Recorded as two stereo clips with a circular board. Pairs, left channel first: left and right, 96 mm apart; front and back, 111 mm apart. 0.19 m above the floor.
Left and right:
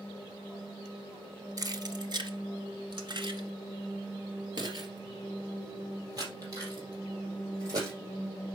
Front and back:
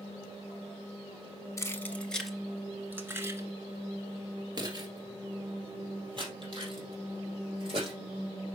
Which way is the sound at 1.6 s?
55° right.